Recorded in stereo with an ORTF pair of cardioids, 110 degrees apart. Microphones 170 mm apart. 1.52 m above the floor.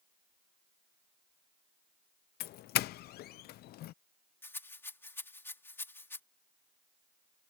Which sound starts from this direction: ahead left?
A doorbell, at 2.4 s.